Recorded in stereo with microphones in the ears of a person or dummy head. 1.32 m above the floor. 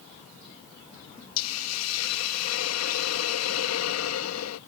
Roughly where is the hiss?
Left.